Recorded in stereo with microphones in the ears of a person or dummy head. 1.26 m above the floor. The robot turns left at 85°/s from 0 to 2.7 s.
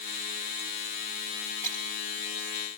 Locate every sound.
1.6 s breaking glass: 10° left (ahead or behind), 6 m; by 1.9 s 35° left (ahead or behind), 6 m